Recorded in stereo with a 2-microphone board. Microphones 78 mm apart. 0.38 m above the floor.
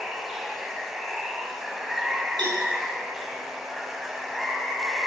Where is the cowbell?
75° right (ahead or behind), 4 m.